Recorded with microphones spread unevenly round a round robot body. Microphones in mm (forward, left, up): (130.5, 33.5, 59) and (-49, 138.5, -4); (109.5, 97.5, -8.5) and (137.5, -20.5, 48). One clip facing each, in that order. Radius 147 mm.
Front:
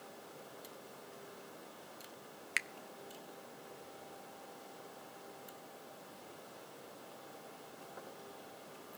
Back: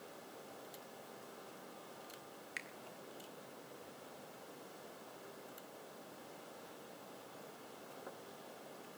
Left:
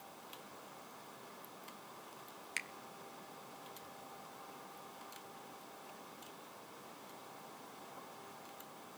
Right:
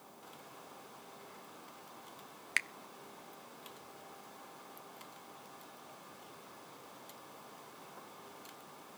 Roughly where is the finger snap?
Ahead right.